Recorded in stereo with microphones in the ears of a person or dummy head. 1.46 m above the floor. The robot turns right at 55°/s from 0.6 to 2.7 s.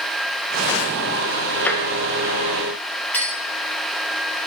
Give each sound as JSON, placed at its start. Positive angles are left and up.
{"t": 1.6, "sound": "tapping", "side_deg": 5, "distance_m": 0.9}
{"t": 3.1, "sound": "a clink", "side_deg": 10, "distance_m": 2.5}